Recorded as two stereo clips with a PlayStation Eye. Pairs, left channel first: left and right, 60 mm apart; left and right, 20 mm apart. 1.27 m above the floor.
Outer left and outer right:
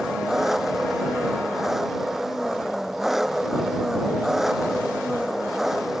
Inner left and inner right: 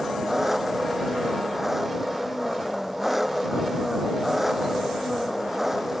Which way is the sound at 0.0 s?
5° right (ahead or behind).